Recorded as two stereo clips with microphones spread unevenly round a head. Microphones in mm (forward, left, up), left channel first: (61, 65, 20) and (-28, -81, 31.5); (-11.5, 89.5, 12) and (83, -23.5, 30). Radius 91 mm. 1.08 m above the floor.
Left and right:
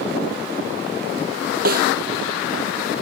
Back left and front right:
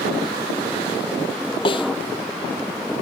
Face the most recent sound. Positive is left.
turn(degrees=-165)